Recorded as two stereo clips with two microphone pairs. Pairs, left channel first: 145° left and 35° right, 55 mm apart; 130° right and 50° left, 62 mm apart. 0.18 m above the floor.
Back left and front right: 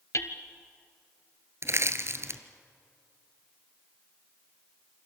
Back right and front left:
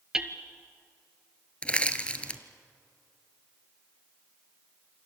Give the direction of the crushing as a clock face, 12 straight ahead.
2 o'clock.